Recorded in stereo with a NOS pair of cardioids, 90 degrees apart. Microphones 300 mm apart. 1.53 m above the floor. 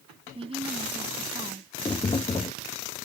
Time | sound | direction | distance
0.3 | a woman speaking | 20° right | ?
1.9 | tapping | 15° left | ?